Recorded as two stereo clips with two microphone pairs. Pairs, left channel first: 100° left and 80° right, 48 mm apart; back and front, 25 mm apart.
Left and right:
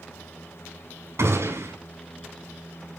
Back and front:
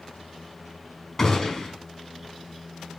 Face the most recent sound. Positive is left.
turn(degrees=-105)